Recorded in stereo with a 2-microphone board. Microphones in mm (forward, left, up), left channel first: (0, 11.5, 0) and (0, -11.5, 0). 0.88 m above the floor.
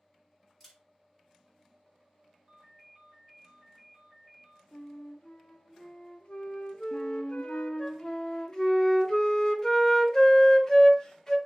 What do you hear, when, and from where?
0.6 s a camera shutter: centre (ahead or behind), 3 m
2.5 s a ringtone: centre (ahead or behind), 2.5 m
4.7 s a flute: 45° left (ahead or behind), 0.6 m
6.9 s a flute: 20° left (ahead or behind), 0.7 m